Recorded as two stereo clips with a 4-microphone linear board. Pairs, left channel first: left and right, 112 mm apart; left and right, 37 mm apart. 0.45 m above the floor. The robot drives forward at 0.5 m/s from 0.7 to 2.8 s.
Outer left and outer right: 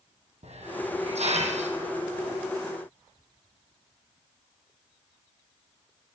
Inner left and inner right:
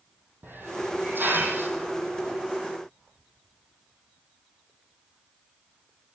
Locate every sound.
0.4 s a hiss: 75° right (ahead or behind), 5 m; by 2.5 s 85° right, 4.5 m